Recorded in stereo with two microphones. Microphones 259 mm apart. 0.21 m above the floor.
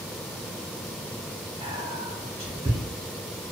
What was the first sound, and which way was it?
Whispering, 25° right (ahead or behind).